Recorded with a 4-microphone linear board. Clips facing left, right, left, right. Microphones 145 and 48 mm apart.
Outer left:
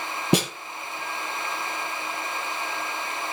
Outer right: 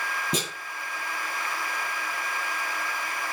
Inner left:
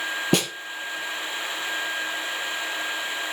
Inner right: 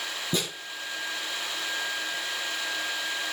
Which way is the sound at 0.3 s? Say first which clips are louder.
Outer left 10 dB, inner left 7 dB; 75° left (ahead or behind).